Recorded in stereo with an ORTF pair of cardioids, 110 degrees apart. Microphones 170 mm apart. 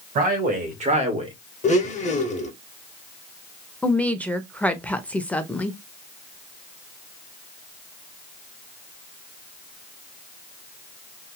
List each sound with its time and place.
0.1 s a man speaking: 60° right, 1.8 m; by 1.3 s 35° right, 1.2 m
1.6 s a blender: 45° left, 0.8 m
3.8 s a woman speaking: 10° left, 0.7 m